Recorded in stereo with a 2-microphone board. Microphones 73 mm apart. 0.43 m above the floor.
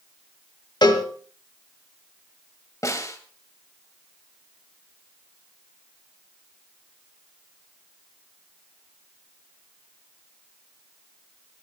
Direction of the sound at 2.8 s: 45° left (ahead or behind).